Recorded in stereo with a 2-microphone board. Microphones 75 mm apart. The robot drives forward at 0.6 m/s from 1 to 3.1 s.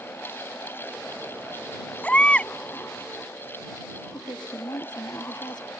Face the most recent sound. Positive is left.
turn(degrees=65)  # may be behind; listen again after turning